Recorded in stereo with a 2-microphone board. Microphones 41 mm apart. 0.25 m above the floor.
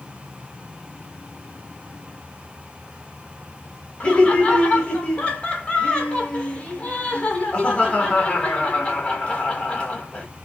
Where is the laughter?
25° left (ahead or behind), 1.1 m.